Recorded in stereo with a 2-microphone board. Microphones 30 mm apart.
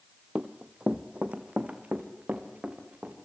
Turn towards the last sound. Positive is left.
turn(degrees=-60)  # may be behind; listen again after turning